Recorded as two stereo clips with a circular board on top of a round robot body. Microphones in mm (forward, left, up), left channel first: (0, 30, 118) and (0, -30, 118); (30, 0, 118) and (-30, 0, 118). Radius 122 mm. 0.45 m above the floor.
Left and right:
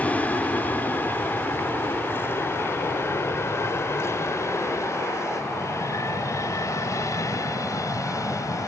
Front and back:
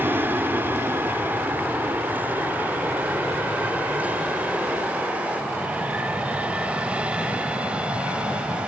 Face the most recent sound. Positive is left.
turn(degrees=110)